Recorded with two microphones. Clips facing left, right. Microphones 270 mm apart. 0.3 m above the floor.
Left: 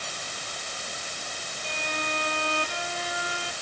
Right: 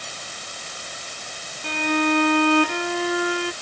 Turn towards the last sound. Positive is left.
turn(degrees=-70)  # may be behind; listen again after turning